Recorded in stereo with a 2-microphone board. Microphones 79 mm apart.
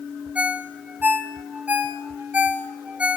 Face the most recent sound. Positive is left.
turn(degrees=-15)  # may be behind; listen again after turning